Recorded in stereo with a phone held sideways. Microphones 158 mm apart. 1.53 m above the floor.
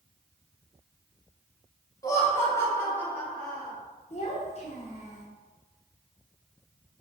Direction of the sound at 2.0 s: 20° left (ahead or behind).